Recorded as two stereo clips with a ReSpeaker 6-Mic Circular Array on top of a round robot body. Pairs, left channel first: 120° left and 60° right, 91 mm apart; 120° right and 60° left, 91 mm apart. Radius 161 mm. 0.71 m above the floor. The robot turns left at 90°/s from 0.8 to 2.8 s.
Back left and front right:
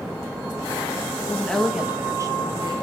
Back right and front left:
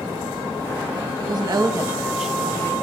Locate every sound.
1.2 s a woman speaking: 70° left, 1.1 m; by 2.7 s 70° right, 1.1 m